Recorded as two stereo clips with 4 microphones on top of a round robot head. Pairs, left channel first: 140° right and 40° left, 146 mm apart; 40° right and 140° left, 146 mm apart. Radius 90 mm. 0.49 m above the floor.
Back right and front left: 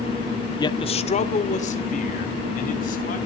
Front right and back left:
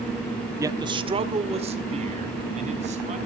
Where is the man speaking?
170° right, 1.0 m; by 3.2 s 175° right, 4.5 m.